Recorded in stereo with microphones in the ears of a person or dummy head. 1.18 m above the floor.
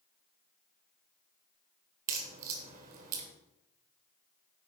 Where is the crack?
50° right (ahead or behind), 1.8 m.